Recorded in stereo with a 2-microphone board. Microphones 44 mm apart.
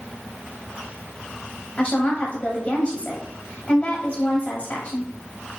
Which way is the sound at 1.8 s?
35° left (ahead or behind).